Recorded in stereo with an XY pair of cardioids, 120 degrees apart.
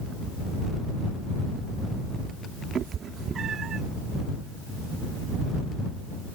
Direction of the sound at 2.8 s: 45° right.